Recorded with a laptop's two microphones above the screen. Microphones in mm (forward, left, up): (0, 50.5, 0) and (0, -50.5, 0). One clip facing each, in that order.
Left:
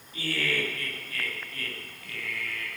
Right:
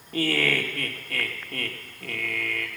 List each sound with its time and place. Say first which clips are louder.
0.1 s laughter: right 6 dB; 70° right (ahead or behind), 2.5 m